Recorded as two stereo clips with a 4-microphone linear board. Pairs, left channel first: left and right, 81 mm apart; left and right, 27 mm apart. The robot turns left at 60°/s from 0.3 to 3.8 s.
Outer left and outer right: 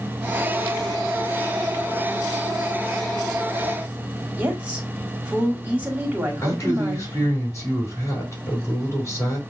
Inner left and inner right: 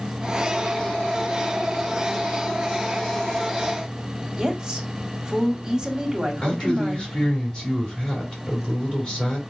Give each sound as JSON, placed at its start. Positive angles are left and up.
{"t": 4.4, "sound": "a woman speaking", "side_deg": -20, "distance_m": 1.4}
{"t": 6.4, "sound": "a man speaking", "side_deg": 35, "distance_m": 2.5}